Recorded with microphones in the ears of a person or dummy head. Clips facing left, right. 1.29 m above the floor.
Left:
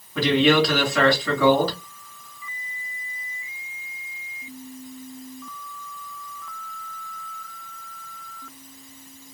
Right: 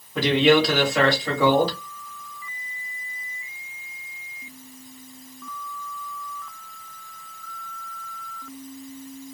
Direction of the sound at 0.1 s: 20° right (ahead or behind).